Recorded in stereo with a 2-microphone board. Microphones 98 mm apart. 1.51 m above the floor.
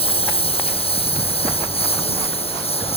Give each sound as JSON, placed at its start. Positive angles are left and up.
{"t": 0.0, "sound": "a lawn mower", "side_deg": 70}